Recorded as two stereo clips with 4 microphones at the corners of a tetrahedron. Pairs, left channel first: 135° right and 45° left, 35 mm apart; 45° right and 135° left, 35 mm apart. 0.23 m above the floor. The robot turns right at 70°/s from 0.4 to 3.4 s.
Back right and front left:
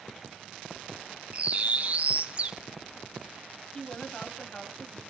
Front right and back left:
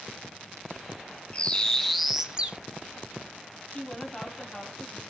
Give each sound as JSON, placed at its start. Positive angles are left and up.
{"t": 1.3, "sound": "a bird", "azimuth_deg": 5, "distance_m": 0.7}
{"t": 3.7, "sound": "a woman speaking", "azimuth_deg": -90, "distance_m": 1.3}